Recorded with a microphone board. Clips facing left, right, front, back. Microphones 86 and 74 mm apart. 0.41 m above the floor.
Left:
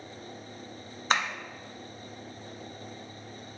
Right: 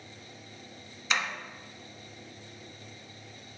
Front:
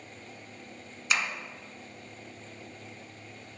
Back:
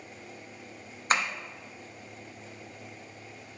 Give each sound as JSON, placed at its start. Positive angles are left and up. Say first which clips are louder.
{"t": 1.1, "sound": "tapping", "louder": "left 4 dB, back 3 dB", "azimuth_deg": 135, "distance_m": 1.3}